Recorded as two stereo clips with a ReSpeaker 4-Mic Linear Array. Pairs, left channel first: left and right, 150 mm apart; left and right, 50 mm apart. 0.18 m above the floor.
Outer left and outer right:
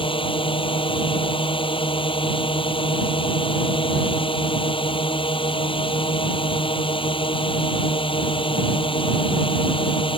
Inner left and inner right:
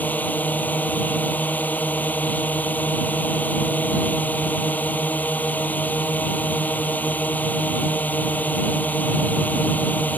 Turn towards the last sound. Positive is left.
turn(degrees=35)  # may be behind; listen again after turning